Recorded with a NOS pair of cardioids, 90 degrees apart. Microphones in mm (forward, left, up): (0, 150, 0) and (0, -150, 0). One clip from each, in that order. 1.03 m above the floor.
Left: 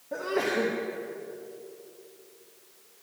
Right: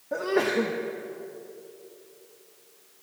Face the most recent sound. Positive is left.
turn(degrees=-20)